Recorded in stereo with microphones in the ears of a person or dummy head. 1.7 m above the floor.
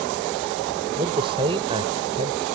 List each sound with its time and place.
1.0 s a man speaking: 25° right (ahead or behind)